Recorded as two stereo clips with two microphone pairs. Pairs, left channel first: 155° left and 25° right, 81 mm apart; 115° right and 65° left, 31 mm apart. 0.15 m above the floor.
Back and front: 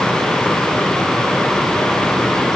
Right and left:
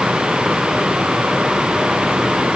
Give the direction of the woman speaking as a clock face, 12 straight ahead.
No woman speaking in this recording.